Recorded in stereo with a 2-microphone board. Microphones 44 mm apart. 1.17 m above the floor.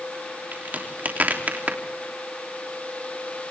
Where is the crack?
45° right (ahead or behind), 3 m.